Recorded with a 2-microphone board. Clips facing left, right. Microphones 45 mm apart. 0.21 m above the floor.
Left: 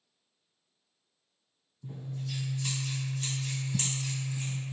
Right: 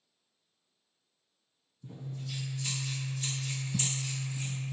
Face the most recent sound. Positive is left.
turn(degrees=45)  # may be behind; listen again after turning